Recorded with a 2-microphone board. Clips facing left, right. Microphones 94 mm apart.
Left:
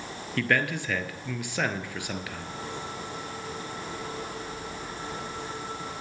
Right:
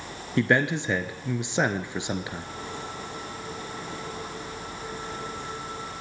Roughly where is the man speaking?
Right.